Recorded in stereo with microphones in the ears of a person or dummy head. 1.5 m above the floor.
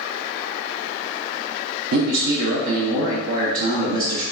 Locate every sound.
1.9 s a man speaking: 85° right, 0.7 m